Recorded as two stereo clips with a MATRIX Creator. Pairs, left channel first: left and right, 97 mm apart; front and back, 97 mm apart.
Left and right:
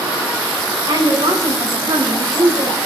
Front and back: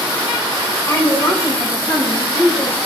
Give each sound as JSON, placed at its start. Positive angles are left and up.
{"t": 0.9, "sound": "a woman speaking", "azimuth_deg": -55, "distance_m": 7.5}